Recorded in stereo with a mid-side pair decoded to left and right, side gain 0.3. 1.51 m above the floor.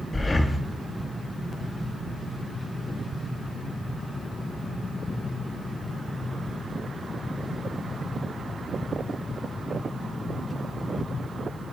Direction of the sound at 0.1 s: 35° left.